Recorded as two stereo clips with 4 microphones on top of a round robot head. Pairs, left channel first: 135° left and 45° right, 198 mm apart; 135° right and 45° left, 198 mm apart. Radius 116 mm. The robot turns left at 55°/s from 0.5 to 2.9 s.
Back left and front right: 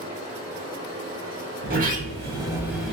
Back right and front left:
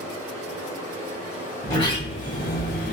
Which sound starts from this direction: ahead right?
A sliding door, at 1.6 s.